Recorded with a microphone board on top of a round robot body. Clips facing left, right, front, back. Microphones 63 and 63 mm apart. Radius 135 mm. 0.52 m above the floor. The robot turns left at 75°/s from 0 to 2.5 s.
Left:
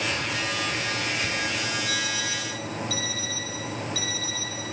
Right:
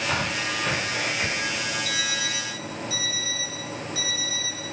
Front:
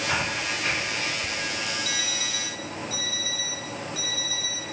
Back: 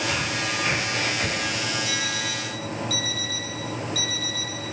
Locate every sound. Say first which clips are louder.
0.1 s breathing: right 2 dB, back 1 dB; 60° right, 2.5 m; by 1.6 s 170° right, 2.5 m
1.9 s an alarm clock: even, back 3 dB; 105° right, 10 m; by 4.7 s 155° right, 10 m